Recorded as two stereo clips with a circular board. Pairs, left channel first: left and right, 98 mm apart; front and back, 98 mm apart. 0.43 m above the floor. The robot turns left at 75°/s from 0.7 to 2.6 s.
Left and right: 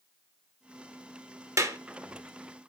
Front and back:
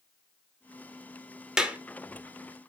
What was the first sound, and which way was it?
A clap, 105° right.